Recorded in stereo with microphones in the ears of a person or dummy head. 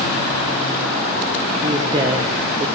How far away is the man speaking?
About 0.6 m.